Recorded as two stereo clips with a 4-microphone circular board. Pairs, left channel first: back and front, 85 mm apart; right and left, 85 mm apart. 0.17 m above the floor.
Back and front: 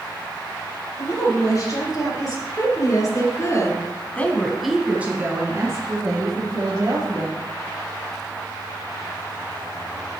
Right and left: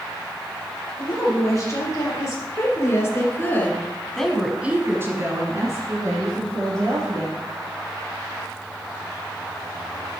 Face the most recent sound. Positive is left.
turn(degrees=45)